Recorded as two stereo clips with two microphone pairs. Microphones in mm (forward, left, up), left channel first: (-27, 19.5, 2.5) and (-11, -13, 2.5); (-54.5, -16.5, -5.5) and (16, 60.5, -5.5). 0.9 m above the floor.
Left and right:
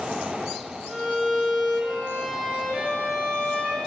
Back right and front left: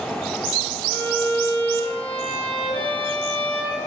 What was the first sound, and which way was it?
A violin, 130° right.